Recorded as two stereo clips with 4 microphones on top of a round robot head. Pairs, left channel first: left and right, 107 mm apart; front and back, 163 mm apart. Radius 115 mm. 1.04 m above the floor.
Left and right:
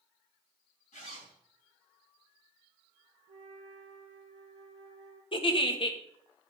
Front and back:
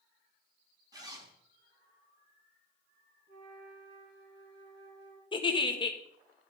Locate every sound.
0.9 s a zipper: 115° left, 4.5 m
3.3 s a flute: 170° left, 1.8 m
5.3 s a giggle: 60° left, 1.8 m